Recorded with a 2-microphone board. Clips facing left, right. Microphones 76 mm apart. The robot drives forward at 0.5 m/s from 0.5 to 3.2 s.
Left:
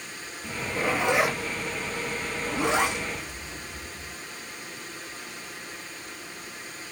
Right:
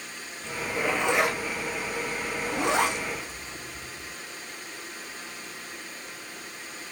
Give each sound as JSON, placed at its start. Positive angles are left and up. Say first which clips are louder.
{"t": 0.4, "sound": "a zipper", "louder": "even", "side_deg": 5, "distance_m": 0.7}